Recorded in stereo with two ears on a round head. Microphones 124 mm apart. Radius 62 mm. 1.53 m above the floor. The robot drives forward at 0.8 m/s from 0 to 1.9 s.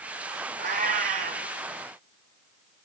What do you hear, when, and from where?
0.6 s a cat meowing: 60° right (ahead or behind), 5 m; by 1.5 s 55° right (ahead or behind), 5 m